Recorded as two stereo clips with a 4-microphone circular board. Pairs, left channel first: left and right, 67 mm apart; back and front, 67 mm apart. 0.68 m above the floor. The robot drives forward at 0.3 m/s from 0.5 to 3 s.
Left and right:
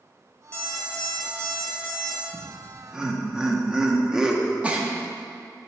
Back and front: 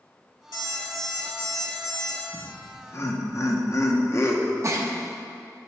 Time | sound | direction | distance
0.5 | an alarm clock | 160° left | 2.5 m
2.3 | laughter | 160° right | 0.7 m
4.6 | a giggle | 20° right | 0.7 m